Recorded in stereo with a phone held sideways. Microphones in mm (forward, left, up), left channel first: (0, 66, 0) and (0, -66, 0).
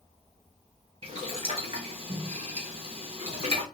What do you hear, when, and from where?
1.0 s boiling: 50° right (ahead or behind), 1.2 m